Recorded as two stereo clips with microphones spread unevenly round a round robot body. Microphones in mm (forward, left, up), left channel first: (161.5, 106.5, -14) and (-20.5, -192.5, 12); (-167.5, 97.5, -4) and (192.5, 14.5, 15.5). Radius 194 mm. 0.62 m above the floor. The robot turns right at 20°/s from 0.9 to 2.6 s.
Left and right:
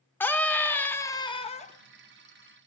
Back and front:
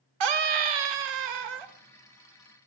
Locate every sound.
0.2 s a scream: 25° right, 1.6 m; by 1.7 s 5° right, 1.6 m